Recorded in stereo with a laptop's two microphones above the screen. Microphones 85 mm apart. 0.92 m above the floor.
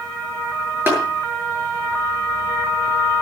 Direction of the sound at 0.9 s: 25° right (ahead or behind).